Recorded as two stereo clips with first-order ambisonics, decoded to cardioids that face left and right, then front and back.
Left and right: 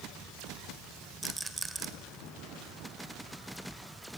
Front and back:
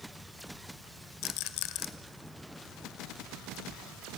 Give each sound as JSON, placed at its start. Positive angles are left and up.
{"t": 1.2, "sound": "a rattle", "azimuth_deg": -10, "distance_m": 1.2}